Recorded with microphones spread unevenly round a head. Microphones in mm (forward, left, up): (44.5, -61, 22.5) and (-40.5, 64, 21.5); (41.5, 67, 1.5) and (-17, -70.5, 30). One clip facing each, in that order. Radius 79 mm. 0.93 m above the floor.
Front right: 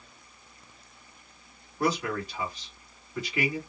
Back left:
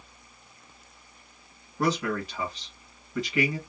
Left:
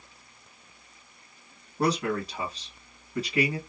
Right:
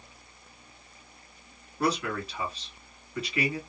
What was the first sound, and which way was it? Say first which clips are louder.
A man speaking: back left 1 dB, left 2 dB; 115° left.